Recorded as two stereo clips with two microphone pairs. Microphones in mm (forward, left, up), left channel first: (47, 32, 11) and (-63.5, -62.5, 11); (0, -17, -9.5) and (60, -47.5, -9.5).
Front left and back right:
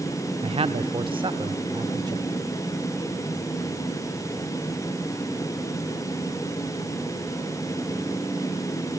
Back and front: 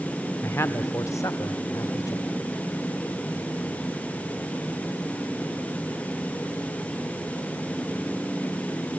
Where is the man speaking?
165° right, 1.0 m; by 2.3 s 165° left, 1.8 m.